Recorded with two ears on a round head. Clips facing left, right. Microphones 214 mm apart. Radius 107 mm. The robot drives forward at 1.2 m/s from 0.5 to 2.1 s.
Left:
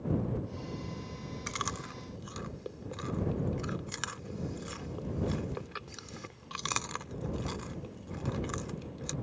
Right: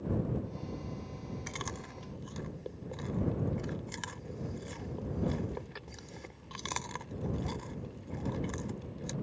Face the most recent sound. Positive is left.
turn(degrees=10)  # may be behind; listen again after turning